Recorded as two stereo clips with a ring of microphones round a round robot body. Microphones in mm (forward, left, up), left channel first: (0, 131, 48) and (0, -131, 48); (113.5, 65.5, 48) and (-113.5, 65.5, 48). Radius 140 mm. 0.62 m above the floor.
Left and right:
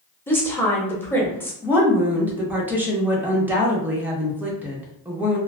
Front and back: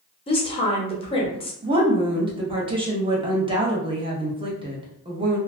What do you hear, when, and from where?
0.3 s a woman speaking: 20° left, 0.9 m
1.6 s a woman speaking: 165° right, 0.8 m